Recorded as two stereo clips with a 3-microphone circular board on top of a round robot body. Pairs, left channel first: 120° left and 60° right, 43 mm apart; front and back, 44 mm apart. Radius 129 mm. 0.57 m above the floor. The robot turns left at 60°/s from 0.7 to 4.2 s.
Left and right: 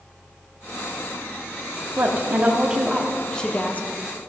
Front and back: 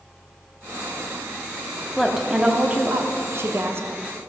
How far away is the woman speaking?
About 1.4 m.